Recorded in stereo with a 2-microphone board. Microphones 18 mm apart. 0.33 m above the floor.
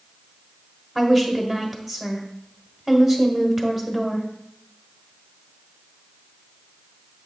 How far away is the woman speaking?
About 1.3 m.